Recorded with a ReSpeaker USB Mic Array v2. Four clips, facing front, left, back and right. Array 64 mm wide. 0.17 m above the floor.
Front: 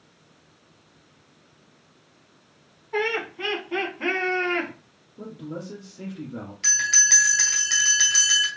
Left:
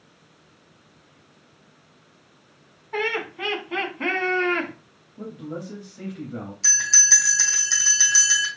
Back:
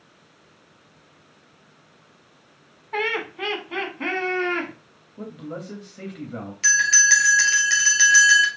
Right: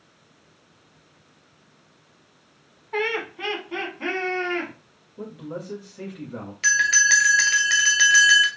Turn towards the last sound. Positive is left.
turn(degrees=-110)